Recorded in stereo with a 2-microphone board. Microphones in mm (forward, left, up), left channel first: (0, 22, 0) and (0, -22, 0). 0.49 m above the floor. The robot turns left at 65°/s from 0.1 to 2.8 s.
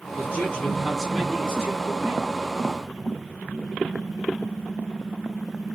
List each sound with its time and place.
0.2 s a man speaking: 80° left, 0.9 m; by 2.3 s 60° right, 0.9 m